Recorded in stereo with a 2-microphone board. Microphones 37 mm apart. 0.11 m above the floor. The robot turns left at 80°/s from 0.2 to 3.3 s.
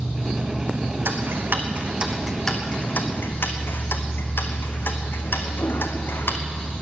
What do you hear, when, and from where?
0.0 s an insect: straight ahead, 0.8 m; by 6.8 s 115° left, 0.8 m
1.1 s ticking: 75° right (ahead or behind), 1.2 m; by 6.4 s 75° left (ahead or behind), 1.2 m